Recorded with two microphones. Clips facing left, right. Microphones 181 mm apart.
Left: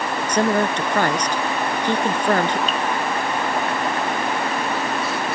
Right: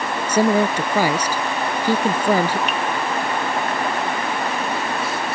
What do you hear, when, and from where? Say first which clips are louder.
0.3 s a woman speaking: right 3 dB; 10° right (ahead or behind)
2.7 s dripping: even; 70° right (ahead or behind)